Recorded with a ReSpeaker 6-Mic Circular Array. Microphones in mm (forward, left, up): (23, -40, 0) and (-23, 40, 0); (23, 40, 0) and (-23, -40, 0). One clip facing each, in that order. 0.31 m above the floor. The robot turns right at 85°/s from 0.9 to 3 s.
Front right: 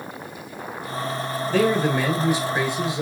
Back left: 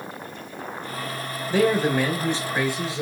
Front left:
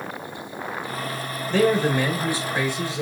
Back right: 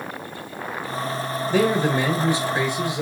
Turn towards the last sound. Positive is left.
turn(degrees=-65)